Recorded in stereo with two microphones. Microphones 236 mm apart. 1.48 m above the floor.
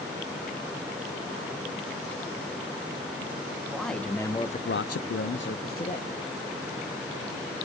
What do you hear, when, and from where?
3.7 s a man speaking: centre (ahead or behind), 1.6 m; by 6.2 s 35° left (ahead or behind), 1.7 m